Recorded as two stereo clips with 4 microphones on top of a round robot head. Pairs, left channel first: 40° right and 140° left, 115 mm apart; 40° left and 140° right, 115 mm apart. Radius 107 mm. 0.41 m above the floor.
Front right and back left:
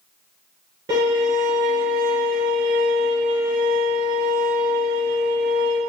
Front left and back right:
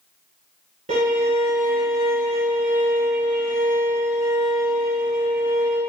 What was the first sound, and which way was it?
A violin, 160° right.